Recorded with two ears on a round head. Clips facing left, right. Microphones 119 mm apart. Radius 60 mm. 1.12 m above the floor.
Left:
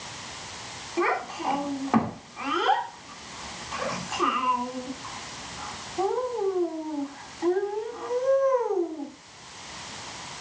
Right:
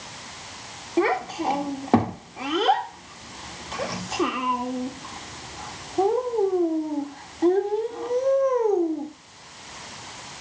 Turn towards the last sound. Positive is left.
turn(degrees=-35)  # may be behind; listen again after turning